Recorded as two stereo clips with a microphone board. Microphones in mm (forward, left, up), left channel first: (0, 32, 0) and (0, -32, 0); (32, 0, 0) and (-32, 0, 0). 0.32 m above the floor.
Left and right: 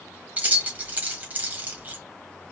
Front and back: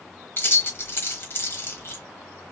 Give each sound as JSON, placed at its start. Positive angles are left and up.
{"t": 0.4, "sound": "keys jangling", "azimuth_deg": -35, "distance_m": 1.3}